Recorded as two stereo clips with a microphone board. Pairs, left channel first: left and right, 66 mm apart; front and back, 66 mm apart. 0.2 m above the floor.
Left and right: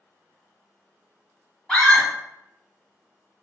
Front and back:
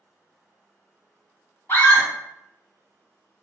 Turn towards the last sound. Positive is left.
turn(degrees=15)